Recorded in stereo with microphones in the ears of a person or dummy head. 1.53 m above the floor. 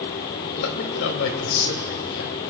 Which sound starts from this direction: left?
A man speaking, at 0.5 s.